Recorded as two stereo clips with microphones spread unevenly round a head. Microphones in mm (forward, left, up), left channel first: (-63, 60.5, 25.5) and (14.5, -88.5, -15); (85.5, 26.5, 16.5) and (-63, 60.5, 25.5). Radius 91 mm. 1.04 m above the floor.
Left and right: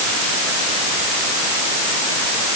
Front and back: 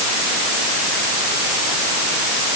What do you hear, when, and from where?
Only background noise.